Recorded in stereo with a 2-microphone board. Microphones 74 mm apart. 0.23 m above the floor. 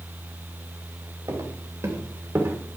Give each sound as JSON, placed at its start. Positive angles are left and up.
{"t": 1.3, "sound": "footsteps", "side_deg": -45, "distance_m": 3.0}